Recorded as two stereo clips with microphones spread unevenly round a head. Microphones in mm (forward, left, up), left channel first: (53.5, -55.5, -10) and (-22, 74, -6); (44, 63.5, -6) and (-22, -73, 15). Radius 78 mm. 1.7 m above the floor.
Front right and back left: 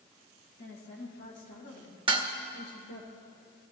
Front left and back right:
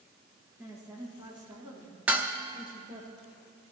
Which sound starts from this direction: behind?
Dishes clattering, at 2.1 s.